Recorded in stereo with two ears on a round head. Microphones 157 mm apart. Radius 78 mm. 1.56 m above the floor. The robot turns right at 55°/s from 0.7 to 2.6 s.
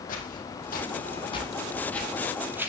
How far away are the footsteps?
About 4 m.